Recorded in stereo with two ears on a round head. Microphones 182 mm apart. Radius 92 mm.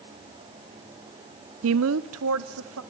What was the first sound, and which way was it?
A woman speaking, 80° right.